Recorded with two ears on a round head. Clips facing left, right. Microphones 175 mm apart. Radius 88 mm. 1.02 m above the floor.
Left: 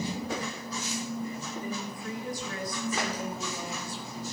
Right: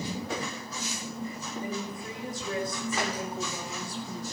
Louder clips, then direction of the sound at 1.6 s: Right 4 dB; 20° right (ahead or behind).